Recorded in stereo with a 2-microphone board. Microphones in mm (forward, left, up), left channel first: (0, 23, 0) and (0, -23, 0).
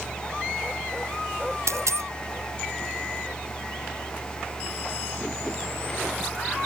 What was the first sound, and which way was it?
A dropped coin, 85° right.